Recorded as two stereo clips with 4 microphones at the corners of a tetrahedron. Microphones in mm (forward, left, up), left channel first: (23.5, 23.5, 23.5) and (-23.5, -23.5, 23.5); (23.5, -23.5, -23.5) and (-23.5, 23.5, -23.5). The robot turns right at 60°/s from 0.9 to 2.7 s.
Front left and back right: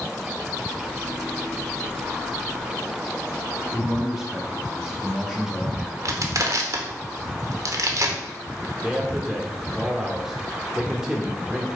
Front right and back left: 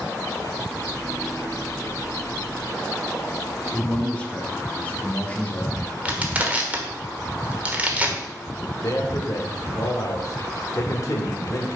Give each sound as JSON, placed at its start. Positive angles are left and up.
{"t": 3.7, "sound": "a man speaking", "azimuth_deg": -65, "distance_m": 1.0}
{"t": 6.0, "sound": "crushing", "azimuth_deg": -160, "distance_m": 1.1}
{"t": 8.8, "sound": "a man speaking", "azimuth_deg": -55, "distance_m": 1.2}